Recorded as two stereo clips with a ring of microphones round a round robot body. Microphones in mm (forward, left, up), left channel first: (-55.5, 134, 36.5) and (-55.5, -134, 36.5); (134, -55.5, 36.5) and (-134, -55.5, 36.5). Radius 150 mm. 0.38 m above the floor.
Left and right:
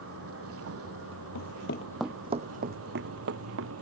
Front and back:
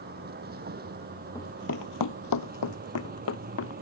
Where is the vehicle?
125° right.